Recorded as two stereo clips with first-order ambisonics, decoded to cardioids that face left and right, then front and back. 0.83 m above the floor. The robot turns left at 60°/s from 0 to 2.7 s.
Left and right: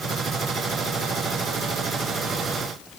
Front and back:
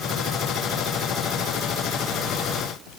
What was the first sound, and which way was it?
Only background noise.